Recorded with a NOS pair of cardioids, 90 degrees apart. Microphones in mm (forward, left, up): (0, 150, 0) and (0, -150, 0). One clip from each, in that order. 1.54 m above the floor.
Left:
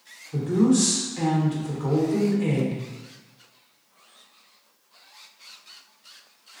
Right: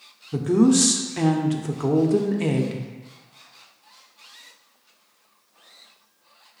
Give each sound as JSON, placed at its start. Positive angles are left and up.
{"t": 0.3, "sound": "a woman speaking", "azimuth_deg": -55, "distance_m": 0.7}